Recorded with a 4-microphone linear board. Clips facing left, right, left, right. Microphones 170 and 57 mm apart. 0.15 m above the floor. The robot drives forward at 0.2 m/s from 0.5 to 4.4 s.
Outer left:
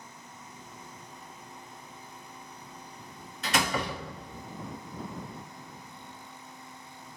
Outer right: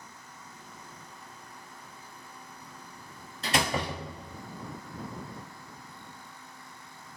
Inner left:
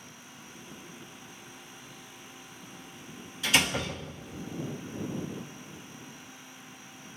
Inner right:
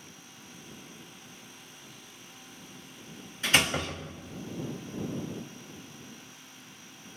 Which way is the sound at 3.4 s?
40° right (ahead or behind).